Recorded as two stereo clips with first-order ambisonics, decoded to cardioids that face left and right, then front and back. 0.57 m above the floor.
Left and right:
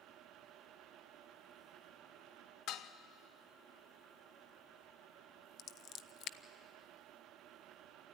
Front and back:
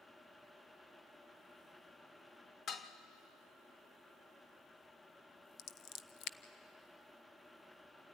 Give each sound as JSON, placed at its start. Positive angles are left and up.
{"t": 2.7, "sound": "dishes clattering", "azimuth_deg": 60, "distance_m": 0.8}
{"t": 5.6, "sound": "scissors", "azimuth_deg": 40, "distance_m": 0.6}